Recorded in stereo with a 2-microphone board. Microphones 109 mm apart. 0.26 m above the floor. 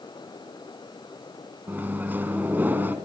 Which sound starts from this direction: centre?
A microwave, at 1.7 s.